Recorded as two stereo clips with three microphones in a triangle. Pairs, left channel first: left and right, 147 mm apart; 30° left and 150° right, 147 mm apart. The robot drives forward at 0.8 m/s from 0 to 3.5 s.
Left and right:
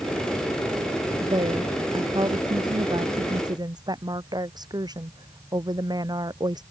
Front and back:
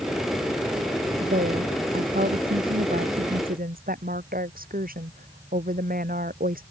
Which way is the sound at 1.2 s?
145° right.